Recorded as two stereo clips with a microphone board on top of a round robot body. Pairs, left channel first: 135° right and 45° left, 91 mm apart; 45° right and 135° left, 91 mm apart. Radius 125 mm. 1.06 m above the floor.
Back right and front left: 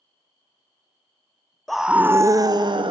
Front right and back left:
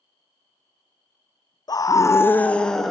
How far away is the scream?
About 0.8 m.